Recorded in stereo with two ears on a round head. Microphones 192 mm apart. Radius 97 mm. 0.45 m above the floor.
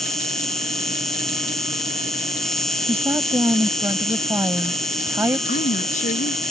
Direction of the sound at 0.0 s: Centre (ahead or behind).